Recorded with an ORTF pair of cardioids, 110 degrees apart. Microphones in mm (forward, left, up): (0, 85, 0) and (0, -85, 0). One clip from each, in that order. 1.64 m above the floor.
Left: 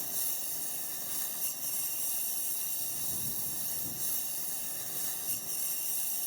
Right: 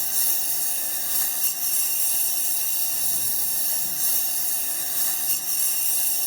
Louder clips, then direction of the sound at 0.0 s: Right 11 dB; 65° right.